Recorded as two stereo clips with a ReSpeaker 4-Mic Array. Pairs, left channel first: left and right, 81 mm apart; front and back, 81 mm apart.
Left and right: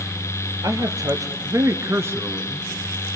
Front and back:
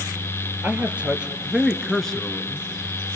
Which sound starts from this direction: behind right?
A man speaking, at 0.6 s.